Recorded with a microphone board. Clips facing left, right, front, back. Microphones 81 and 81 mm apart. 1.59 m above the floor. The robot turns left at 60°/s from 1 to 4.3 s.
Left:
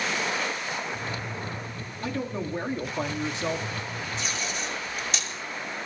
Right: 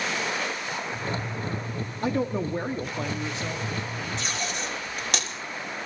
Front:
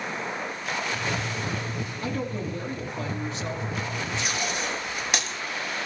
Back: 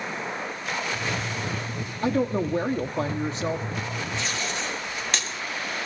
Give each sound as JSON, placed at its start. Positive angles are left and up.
{"t": 2.0, "sound": "a woman speaking", "azimuth_deg": -130, "distance_m": 0.6}
{"t": 4.2, "sound": "tape being pulled", "azimuth_deg": -70, "distance_m": 3.0}